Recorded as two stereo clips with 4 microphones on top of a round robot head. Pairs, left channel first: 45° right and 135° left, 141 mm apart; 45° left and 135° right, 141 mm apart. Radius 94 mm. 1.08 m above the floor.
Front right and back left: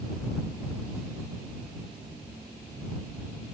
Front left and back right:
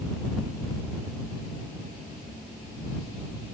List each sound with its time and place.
Only background noise.